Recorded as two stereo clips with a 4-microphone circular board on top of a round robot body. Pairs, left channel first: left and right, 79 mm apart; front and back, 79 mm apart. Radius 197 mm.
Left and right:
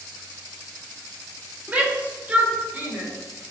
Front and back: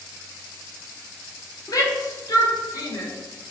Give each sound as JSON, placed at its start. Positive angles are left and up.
{"t": 1.7, "sound": "a shout", "azimuth_deg": -25, "distance_m": 2.5}